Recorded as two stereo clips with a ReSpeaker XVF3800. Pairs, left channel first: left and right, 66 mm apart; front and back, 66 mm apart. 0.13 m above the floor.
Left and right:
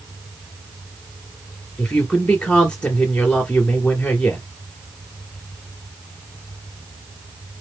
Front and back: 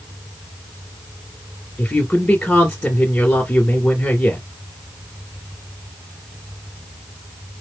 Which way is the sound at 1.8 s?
30° left.